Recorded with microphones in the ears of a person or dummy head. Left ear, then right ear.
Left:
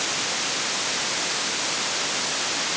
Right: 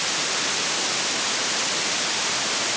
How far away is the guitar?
I don't hear a guitar.